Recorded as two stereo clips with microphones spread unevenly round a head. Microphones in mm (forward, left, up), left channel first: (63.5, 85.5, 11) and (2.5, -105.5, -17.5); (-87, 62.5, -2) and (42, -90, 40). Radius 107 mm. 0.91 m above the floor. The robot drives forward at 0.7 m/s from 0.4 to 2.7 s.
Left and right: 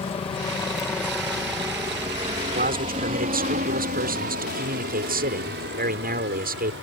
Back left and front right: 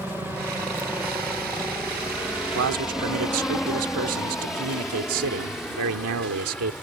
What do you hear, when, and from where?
0.0 s a helicopter: 45° left; by 6.8 s 145° right
2.5 s a man speaking: 60° right; by 6.7 s 65° right